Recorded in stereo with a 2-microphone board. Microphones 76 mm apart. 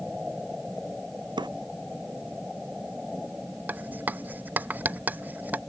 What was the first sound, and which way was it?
A drawer, 80° right.